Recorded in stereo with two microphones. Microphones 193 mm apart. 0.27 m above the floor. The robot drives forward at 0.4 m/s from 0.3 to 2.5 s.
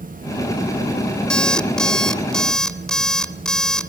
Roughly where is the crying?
I don't hear crying.